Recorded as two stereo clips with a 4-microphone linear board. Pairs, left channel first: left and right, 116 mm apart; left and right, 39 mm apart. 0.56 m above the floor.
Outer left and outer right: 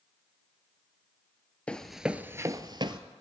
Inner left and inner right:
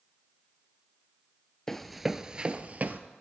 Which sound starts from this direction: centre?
Running footsteps, at 1.7 s.